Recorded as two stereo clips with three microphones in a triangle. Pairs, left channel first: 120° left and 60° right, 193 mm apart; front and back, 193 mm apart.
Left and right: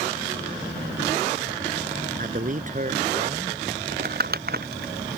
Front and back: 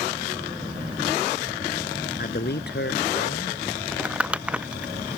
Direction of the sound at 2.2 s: 25° right.